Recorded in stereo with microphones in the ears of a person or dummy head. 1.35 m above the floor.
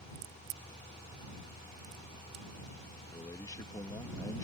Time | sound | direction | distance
0.1 | a crack | 50° right (ahead or behind) | ?
3.1 | a man speaking | 20° left (ahead or behind) | ?